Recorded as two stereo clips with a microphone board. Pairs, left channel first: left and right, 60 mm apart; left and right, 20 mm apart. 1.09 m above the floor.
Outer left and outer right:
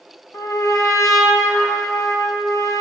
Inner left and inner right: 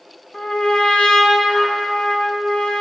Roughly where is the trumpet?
Left.